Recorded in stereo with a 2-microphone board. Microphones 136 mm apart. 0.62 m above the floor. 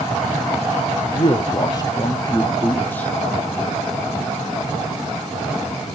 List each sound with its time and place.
1.1 s a man speaking: 35° left (ahead or behind), 0.9 m; by 3.1 s 10° left (ahead or behind), 1.4 m